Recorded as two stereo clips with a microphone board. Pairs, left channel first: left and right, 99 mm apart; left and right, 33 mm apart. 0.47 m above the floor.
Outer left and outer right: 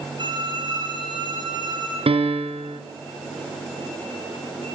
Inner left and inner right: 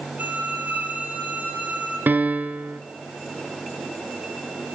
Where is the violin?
50° right (ahead or behind), 6.5 m.